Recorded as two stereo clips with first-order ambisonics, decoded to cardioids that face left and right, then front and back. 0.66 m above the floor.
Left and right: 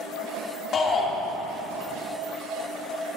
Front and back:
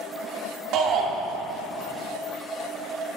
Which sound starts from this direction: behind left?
A shout, at 0.7 s.